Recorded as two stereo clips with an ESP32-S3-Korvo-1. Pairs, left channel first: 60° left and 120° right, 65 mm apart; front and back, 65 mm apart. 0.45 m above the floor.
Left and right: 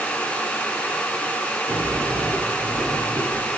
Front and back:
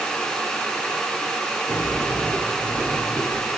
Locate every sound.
1.7 s a sliding door: 65° right, 1.6 m